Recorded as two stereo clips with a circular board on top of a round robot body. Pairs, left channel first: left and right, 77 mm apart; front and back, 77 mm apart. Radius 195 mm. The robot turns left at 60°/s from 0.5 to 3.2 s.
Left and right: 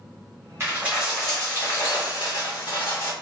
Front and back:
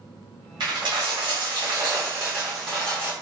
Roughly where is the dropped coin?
Behind right.